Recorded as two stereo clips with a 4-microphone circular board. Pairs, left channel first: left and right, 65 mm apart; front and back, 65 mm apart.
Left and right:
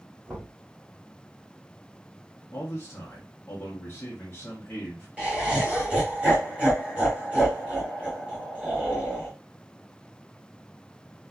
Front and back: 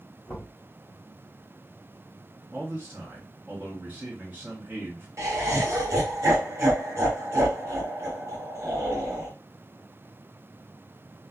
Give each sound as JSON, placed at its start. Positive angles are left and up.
{"t": 0.3, "sound": "knocking", "azimuth_deg": -10, "distance_m": 1.3}
{"t": 2.5, "sound": "a man speaking", "azimuth_deg": 130, "distance_m": 0.7}
{"t": 5.2, "sound": "laughter", "azimuth_deg": -155, "distance_m": 1.2}